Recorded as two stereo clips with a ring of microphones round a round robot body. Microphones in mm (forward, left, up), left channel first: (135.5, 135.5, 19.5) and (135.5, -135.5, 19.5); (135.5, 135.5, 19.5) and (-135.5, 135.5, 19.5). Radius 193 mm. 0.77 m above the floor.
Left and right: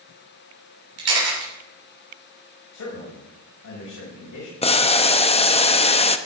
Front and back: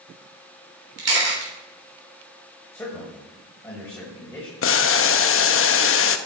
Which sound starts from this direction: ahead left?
Boiling, at 4.6 s.